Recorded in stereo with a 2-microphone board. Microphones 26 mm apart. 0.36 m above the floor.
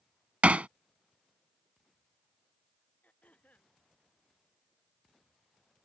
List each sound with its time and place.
0.4 s hammering: 60° right (ahead or behind)
3.0 s throat clearing: 70° left (ahead or behind)